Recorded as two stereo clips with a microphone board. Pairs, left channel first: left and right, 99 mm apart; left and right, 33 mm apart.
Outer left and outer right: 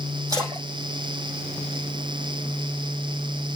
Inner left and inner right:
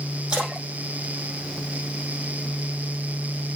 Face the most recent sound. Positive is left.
turn(degrees=-35)  # may be behind; listen again after turning